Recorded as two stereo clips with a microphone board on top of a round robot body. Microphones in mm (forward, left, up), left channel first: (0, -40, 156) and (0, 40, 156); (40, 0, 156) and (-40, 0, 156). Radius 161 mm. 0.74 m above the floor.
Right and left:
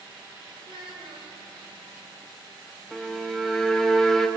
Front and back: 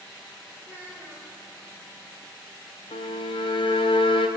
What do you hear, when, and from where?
0.6 s a child speaking: 75° left, 3.5 m
2.9 s a violin: 5° right, 0.8 m